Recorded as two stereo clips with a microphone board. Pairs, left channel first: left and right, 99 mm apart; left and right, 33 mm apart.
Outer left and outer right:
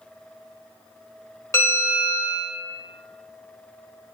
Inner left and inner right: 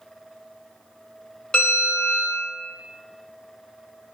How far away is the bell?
About 1.1 m.